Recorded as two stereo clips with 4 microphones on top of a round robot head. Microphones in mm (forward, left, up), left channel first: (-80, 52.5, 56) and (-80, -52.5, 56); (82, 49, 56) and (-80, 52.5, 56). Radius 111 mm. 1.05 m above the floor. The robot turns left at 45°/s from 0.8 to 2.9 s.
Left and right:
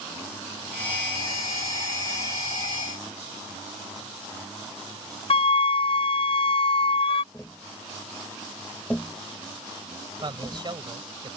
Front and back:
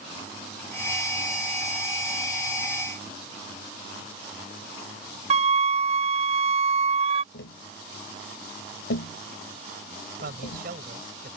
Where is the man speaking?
135° right.